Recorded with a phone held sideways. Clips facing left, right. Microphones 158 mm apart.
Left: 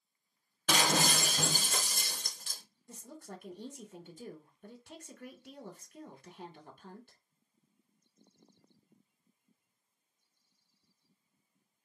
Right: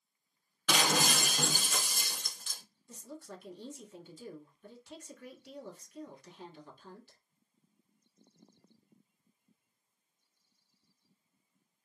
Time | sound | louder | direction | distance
0.7 | breaking glass | even | 40° left (ahead or behind) | 1.2 m
2.9 | a woman speaking | right 1 dB | 55° left (ahead or behind) | 1.1 m